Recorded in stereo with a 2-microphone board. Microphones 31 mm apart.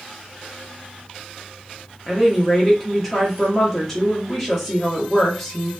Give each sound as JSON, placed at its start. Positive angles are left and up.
{"t": 2.1, "sound": "a woman speaking", "side_deg": 0, "distance_m": 0.8}